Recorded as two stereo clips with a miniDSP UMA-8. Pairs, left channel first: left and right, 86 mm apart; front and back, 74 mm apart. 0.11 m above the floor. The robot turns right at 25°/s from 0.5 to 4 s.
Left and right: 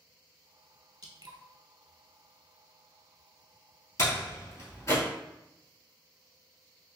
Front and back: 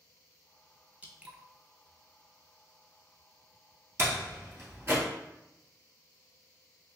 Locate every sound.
1.0 s dripping: 115° right, 0.6 m; by 1.4 s 105° right, 0.6 m
4.0 s a door slam: 135° left, 1.5 m